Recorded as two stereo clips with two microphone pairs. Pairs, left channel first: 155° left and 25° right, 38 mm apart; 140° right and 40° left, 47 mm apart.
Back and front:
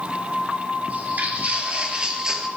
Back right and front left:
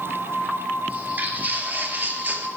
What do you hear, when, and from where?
0.9 s footsteps: straight ahead, 2.5 m; by 2.5 s 50° left, 2 m